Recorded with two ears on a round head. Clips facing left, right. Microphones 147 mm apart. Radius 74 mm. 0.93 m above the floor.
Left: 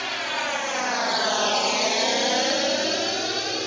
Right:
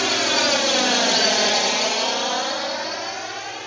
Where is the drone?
60° right (ahead or behind); by 3.7 s 50° left (ahead or behind).